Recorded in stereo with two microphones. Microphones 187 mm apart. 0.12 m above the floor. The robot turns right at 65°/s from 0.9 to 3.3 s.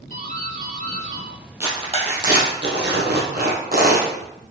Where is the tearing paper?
10° right (ahead or behind), 2.5 m; by 4.1 s 55° right (ahead or behind), 2.5 m.